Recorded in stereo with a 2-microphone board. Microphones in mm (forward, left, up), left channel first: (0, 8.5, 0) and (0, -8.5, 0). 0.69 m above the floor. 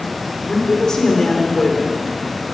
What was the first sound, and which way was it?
A woman speaking, 45° left (ahead or behind).